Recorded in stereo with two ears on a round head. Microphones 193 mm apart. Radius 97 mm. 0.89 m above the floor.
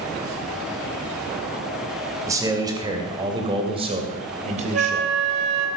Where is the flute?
55° right (ahead or behind), 1.7 m.